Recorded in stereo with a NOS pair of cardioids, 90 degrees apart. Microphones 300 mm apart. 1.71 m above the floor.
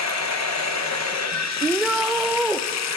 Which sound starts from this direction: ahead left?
Running water, at 0.0 s.